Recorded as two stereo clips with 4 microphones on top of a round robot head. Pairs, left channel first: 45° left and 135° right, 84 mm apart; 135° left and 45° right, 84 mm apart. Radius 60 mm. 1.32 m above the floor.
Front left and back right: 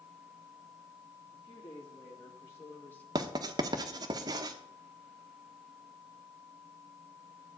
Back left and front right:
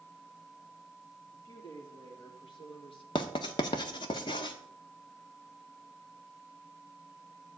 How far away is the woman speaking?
About 3.5 m.